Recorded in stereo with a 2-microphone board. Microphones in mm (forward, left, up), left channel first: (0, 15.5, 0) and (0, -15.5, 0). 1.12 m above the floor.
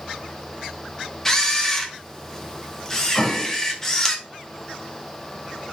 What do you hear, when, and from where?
1.2 s a camera shutter: 15° left (ahead or behind), 0.7 m
3.1 s an explosion: 35° left (ahead or behind), 1.4 m